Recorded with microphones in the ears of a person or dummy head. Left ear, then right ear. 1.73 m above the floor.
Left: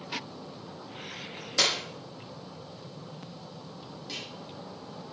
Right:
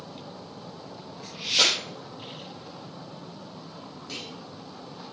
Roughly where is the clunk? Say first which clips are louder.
Right 1 dB; centre.